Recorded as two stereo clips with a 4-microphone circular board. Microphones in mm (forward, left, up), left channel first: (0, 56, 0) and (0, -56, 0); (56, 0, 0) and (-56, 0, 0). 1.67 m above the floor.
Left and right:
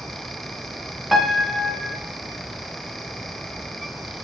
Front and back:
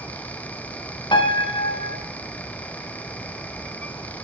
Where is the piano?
Straight ahead, 0.7 m.